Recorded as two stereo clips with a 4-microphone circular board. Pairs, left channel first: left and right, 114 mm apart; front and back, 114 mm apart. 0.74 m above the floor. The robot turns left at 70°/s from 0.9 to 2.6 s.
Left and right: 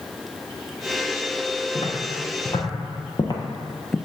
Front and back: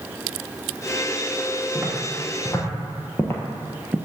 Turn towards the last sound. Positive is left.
turn(degrees=175)